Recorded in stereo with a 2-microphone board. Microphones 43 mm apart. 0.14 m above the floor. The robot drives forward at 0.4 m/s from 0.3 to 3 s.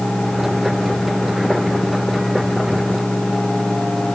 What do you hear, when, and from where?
Only background noise.